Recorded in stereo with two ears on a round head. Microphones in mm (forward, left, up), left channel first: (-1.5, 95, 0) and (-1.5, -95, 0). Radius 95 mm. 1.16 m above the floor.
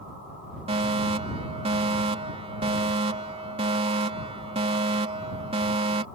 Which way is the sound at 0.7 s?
30° right (ahead or behind).